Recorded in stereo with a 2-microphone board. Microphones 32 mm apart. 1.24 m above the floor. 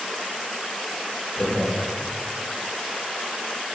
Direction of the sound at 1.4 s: 25° left (ahead or behind).